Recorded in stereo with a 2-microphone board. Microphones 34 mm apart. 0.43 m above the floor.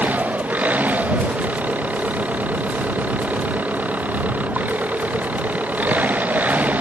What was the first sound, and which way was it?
An engine running, 55° right (ahead or behind).